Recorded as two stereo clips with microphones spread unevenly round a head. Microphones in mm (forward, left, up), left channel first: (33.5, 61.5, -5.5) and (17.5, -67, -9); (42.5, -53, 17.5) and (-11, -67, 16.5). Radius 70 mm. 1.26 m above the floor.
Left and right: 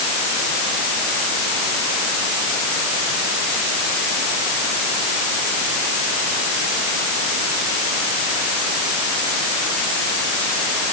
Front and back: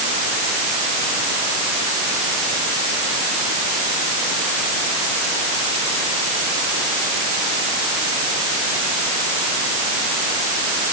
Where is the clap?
I don't hear a clap.